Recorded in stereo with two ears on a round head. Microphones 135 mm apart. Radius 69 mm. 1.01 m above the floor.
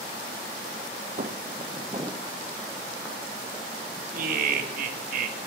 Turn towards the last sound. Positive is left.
turn(degrees=-60)  # may be behind; listen again after turning